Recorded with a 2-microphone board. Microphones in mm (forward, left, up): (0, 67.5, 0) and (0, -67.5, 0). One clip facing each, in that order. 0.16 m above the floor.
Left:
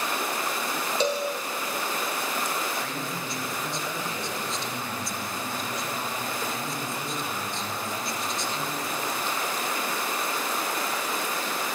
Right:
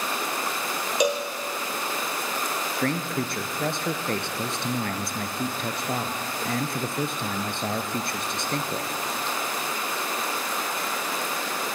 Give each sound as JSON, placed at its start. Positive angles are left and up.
{"t": 1.0, "sound": "a cowbell", "side_deg": -15, "distance_m": 2.5}
{"t": 2.8, "sound": "a man speaking", "side_deg": -65, "distance_m": 2.5}